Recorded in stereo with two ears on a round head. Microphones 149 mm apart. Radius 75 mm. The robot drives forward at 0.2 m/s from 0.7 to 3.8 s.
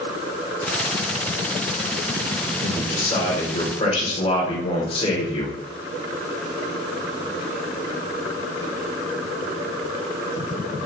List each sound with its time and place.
2.6 s a man speaking: 35° left (ahead or behind), 1.4 m